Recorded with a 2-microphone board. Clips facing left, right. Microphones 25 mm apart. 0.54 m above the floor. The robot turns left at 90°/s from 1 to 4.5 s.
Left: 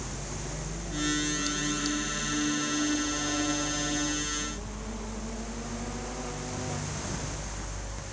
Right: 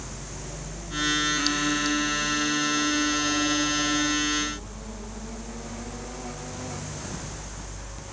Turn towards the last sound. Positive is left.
No sound to turn to.